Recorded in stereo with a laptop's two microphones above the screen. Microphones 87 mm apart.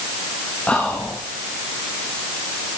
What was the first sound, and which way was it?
Whispering, 15° left (ahead or behind).